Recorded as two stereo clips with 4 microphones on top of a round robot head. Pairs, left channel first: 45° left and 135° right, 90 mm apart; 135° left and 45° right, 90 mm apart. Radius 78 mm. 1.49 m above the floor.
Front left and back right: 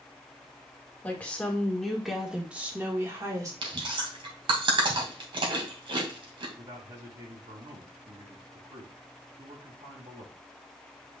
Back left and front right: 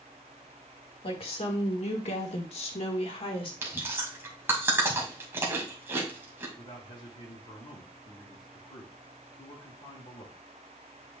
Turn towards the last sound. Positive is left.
turn(degrees=175)